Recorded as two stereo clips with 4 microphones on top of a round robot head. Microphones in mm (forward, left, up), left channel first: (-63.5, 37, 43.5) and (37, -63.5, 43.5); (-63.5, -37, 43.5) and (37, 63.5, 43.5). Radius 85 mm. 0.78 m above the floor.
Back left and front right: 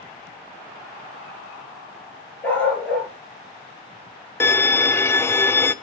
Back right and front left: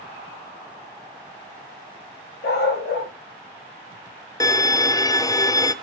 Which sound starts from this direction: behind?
A violin, at 4.4 s.